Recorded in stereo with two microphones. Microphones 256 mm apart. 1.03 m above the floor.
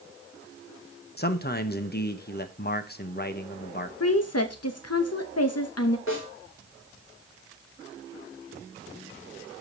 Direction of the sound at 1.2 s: 40° left (ahead or behind).